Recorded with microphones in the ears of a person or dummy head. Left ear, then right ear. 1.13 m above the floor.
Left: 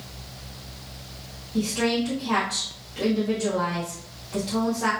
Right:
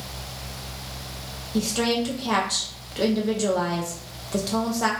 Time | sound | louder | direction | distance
1.5 | a woman speaking | right 1 dB | 75° right (ahead or behind) | 0.6 m